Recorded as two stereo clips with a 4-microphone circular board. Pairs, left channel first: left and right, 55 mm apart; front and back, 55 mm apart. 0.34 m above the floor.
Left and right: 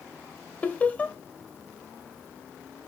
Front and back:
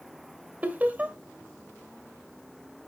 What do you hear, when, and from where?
0.6 s laughter: 135° left, 1.0 m